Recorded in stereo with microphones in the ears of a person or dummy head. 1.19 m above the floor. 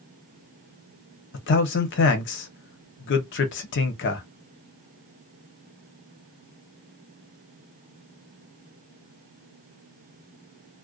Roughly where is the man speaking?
Left.